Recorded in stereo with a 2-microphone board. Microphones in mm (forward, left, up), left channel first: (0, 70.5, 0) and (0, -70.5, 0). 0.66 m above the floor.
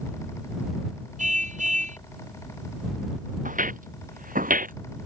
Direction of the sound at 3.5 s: 70° right (ahead or behind).